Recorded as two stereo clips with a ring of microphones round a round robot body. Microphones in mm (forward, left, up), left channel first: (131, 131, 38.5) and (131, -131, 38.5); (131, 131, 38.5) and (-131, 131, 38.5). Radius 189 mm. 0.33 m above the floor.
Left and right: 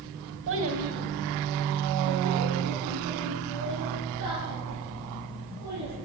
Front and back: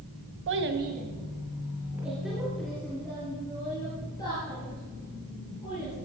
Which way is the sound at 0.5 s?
135° right.